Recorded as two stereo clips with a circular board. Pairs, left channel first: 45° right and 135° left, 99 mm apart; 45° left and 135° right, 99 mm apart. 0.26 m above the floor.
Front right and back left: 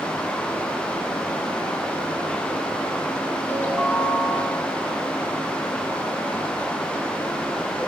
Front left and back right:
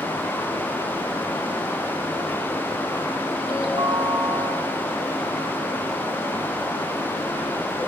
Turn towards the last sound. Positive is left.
turn(degrees=-115)